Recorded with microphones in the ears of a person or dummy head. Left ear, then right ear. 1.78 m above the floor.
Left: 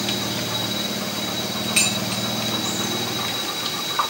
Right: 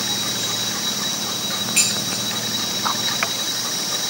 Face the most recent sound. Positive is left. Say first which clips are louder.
# even
turn(degrees=25)  # may be behind; listen again after turning